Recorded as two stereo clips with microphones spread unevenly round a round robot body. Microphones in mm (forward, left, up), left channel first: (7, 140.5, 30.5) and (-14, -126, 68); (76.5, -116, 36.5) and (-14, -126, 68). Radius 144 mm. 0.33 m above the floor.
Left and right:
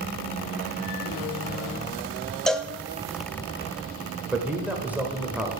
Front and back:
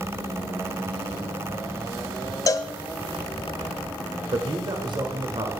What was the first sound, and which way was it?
A cowbell, 5° left.